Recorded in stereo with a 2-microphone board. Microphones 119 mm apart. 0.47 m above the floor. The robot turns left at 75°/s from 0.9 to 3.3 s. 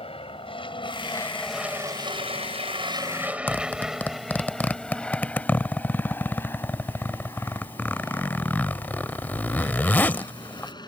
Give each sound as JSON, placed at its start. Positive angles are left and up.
{"t": 0.0, "sound": "an aircraft", "side_deg": 50}
{"t": 3.5, "sound": "a zipper", "side_deg": 15}